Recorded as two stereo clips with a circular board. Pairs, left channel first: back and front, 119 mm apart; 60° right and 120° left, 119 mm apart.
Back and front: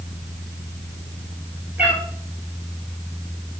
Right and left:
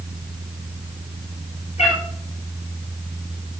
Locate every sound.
1.8 s a cat meowing: 75° right, 1.6 m